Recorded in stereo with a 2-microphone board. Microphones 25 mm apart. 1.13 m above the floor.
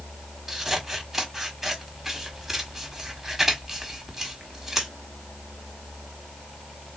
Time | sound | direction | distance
0.5 | scissors | 10° right (ahead or behind) | 1.2 m